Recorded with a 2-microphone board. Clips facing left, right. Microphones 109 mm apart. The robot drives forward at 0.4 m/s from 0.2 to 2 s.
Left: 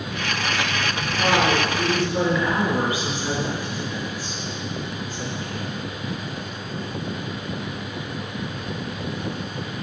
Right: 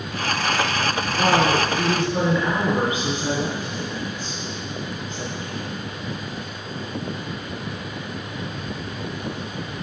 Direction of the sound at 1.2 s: 20° right (ahead or behind).